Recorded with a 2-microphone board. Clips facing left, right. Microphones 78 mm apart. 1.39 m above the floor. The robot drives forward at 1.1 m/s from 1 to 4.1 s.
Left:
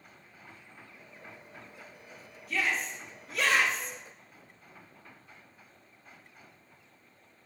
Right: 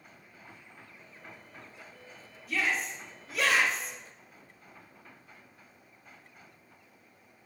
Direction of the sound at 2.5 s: Centre (ahead or behind).